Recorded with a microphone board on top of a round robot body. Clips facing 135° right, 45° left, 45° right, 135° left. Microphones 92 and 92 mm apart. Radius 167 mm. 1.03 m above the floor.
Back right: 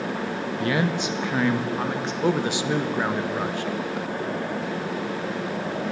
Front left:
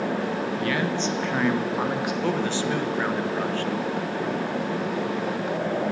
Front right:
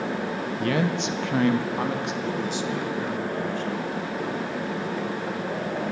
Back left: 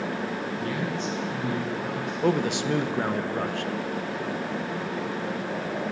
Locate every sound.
0.6 s a man speaking: 70° right, 1.6 m; by 2.1 s 35° right, 2.5 m
2.2 s a man speaking: 150° left, 1.9 m